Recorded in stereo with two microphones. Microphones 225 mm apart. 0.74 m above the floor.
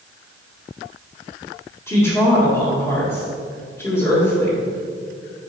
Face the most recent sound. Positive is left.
turn(degrees=10)  # may be behind; listen again after turning